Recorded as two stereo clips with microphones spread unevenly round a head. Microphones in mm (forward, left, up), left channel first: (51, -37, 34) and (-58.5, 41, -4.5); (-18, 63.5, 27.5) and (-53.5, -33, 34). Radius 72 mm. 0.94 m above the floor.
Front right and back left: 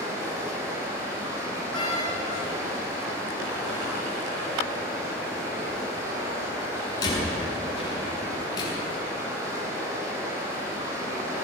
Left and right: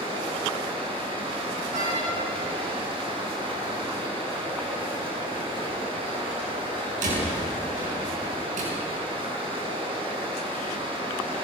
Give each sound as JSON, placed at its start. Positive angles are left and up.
{"t": 0.0, "sound": "running water", "azimuth_deg": -145, "distance_m": 8.5}
{"t": 1.7, "sound": "a door slam", "azimuth_deg": -95, "distance_m": 8.5}